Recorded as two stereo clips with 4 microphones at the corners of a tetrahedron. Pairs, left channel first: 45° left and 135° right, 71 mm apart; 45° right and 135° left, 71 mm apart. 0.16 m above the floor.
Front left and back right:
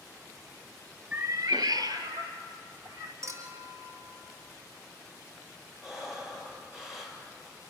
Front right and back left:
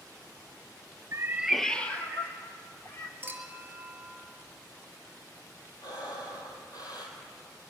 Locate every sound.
1.1 s a cat meowing: 165° left, 0.6 m; by 3.1 s 95° right, 2.5 m
3.2 s a clink: 165° right, 1.9 m
5.8 s breathing: 50° right, 3 m